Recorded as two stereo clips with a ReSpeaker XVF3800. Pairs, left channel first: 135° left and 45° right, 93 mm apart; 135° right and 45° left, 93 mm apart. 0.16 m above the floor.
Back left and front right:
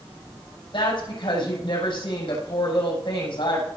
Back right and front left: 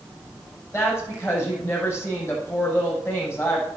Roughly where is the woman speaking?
Behind.